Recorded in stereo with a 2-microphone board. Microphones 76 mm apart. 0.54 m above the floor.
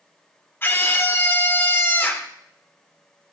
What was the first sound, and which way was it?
A scream, 25° left (ahead or behind).